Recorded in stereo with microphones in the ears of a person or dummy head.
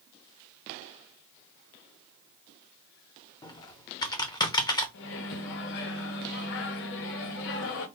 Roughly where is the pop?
No pop in this recording.